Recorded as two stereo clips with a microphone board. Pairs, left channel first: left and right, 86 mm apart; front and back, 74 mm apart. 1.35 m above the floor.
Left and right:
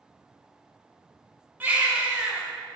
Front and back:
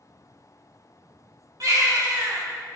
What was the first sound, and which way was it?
A baby crying, 155° right.